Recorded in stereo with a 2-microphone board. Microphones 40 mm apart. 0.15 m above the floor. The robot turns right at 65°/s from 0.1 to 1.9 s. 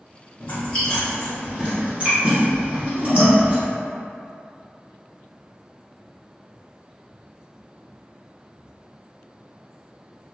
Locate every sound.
0.4 s chewing: 35° left (ahead or behind), 1.9 m; by 3.6 s 40° right (ahead or behind), 1.9 m